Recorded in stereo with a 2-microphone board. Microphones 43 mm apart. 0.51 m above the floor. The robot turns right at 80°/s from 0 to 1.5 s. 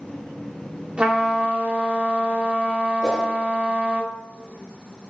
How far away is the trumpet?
About 1.3 m.